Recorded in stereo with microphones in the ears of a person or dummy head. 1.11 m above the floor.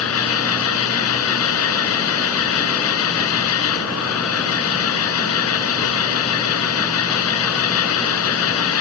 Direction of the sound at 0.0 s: 90° left.